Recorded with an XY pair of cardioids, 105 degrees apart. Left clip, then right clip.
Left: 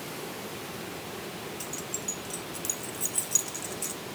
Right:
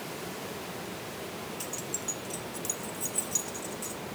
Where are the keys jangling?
5° left, 1.8 m; by 4.0 s 55° left, 2.5 m.